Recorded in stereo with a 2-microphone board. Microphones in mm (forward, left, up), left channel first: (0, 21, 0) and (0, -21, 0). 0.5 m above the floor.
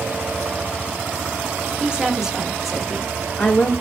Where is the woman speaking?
25° right (ahead or behind), 0.9 m; by 3.7 s 35° left (ahead or behind), 0.9 m.